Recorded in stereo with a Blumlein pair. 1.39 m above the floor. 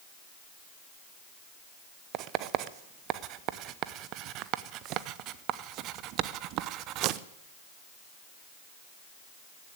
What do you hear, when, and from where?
2.1 s writing: 40° right, 0.7 m